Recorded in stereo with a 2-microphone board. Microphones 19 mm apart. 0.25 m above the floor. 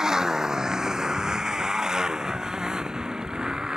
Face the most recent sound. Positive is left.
turn(degrees=-45)  # may be behind; listen again after turning